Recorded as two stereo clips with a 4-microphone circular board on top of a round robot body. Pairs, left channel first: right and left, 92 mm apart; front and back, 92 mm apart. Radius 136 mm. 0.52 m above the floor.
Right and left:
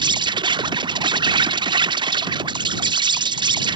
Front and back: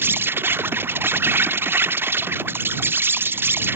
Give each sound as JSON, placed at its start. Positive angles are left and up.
{"t": 0.0, "sound": "an insect", "azimuth_deg": 115}